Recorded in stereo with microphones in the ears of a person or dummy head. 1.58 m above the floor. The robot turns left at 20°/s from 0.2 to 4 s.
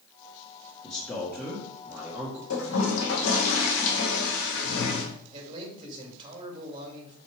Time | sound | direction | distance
0.8 | a man speaking | 20° left | 1.8 m
2.5 | a toilet flushing | 95° left | 2 m
5.3 | a man speaking | 25° right (ahead or behind) | 2.5 m